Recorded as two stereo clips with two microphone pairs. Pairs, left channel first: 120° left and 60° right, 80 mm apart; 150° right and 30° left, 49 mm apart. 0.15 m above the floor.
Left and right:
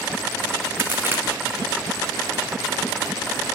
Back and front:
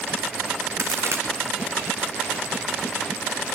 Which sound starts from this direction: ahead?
A crack, at 0.8 s.